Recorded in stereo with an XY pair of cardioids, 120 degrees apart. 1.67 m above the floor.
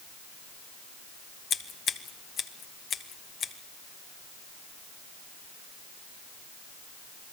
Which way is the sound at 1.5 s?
50° left.